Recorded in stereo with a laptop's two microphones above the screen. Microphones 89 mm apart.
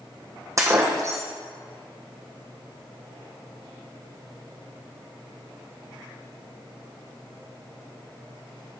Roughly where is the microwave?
I don't hear a microwave.